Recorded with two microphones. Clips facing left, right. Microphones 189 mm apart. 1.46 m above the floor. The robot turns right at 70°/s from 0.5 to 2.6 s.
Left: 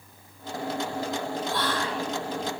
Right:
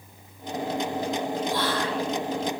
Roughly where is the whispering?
Ahead.